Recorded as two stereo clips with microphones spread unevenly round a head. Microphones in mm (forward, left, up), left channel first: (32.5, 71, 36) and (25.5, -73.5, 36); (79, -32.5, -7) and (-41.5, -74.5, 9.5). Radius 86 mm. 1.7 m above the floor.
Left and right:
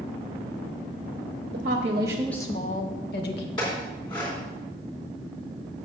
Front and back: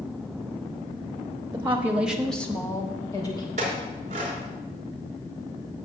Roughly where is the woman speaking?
Right.